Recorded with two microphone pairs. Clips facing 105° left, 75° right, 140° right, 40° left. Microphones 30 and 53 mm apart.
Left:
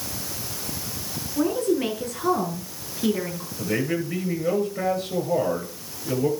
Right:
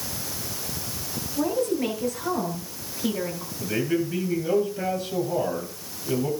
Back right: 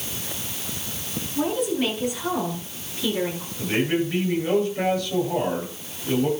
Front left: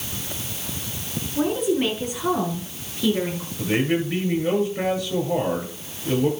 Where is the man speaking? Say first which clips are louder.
Even, front left 1 dB; 110° left, 9.5 m.